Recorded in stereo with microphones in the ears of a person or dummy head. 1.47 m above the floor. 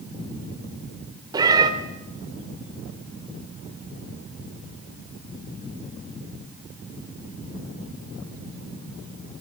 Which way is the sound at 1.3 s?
25° right (ahead or behind).